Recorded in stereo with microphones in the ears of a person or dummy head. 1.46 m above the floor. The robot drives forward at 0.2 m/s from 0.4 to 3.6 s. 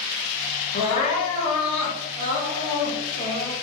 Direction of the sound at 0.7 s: 35° left (ahead or behind).